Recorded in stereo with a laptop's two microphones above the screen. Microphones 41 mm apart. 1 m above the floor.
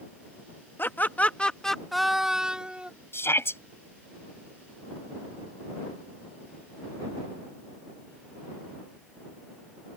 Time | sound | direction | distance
0.8 | laughter | 55° left (ahead or behind) | ?
3.1 | a shout | 70° left (ahead or behind) | ?